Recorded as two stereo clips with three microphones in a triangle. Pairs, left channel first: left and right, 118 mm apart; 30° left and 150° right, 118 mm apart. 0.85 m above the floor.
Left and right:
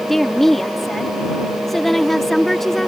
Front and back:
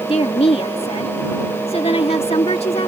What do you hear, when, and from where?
0.1 s a woman speaking: 5° left